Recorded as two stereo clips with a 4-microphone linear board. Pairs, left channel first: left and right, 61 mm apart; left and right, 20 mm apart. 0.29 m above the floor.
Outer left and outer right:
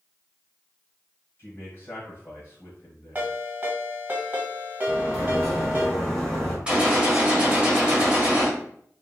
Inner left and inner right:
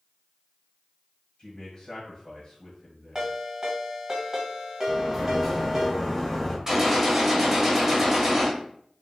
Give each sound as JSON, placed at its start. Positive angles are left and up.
{"t": 1.4, "sound": "a man speaking", "side_deg": 30, "distance_m": 1.2}
{"t": 3.1, "sound": "a ringtone", "side_deg": -30, "distance_m": 0.8}
{"t": 4.9, "sound": "a sliding door", "side_deg": 5, "distance_m": 1.4}
{"t": 6.7, "sound": "a gunshot", "side_deg": -20, "distance_m": 1.0}